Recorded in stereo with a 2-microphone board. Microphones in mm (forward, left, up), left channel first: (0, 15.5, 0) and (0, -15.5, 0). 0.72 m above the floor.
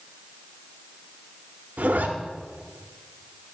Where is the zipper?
65° right (ahead or behind), 0.9 m.